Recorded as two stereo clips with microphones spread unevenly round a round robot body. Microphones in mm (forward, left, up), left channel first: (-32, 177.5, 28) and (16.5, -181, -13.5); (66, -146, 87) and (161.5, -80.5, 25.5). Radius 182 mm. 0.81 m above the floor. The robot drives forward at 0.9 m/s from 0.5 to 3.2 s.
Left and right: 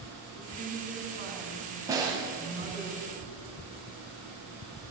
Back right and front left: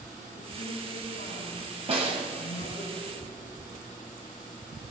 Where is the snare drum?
Straight ahead, 6 m.